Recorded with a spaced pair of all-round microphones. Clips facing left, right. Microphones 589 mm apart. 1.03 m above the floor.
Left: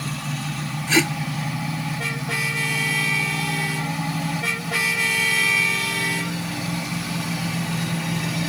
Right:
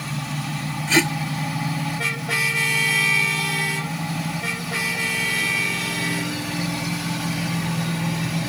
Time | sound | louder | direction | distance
0.9 | tape being pulled | even | 5° right (ahead or behind) | ?